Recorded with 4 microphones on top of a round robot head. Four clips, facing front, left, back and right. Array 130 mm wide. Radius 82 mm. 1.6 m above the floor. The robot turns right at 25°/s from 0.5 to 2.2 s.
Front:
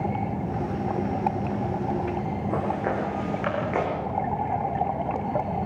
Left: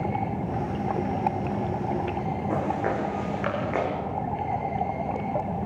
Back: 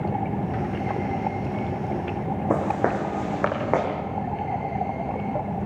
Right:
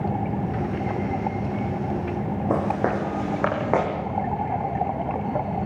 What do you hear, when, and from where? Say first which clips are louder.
2.5 s footsteps: right 4 dB, back 4 dB; 145° right, 6.5 m; by 3.9 s 130° right, 7 m